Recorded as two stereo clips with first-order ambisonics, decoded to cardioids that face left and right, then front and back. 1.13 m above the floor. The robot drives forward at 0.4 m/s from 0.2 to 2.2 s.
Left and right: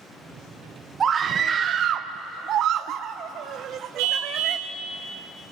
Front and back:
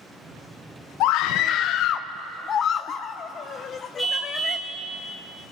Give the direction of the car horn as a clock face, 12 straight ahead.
3 o'clock.